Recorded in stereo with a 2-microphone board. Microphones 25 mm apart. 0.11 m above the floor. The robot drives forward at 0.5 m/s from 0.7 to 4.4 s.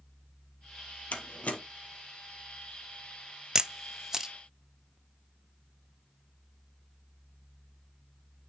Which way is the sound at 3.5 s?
25° right (ahead or behind).